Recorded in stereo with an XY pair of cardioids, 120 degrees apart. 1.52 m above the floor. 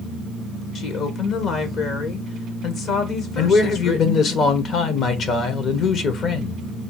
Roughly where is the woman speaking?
Ahead left.